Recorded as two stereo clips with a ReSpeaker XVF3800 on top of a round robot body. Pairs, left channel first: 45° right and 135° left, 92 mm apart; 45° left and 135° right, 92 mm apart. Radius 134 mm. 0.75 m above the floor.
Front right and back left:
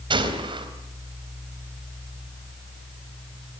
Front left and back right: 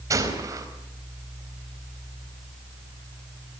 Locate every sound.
0.1 s a gunshot: 170° left, 4 m